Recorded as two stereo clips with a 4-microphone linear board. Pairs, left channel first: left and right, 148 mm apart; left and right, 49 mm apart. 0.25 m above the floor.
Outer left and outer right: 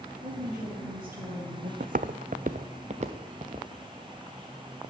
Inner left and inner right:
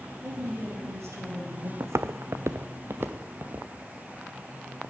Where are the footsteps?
70° right (ahead or behind), 0.6 m; by 3.7 s 45° right (ahead or behind), 1.6 m.